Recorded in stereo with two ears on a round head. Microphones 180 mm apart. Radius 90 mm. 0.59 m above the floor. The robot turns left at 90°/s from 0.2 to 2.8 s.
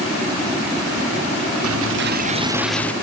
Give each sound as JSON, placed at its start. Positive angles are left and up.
{"t": 1.6, "sound": "a dropped coin", "azimuth_deg": -85}